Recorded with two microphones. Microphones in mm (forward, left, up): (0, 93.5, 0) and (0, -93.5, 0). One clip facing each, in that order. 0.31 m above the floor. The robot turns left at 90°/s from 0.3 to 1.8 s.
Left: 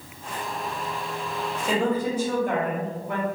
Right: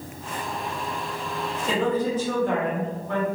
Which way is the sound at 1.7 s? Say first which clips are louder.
Even; 5° left (ahead or behind).